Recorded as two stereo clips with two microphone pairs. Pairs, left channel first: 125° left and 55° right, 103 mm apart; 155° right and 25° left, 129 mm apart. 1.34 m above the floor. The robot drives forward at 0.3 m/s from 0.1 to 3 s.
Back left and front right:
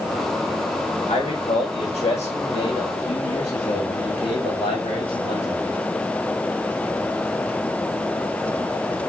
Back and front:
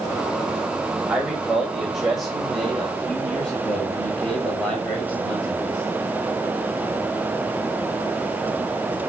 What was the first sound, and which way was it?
A man speaking, 110° left.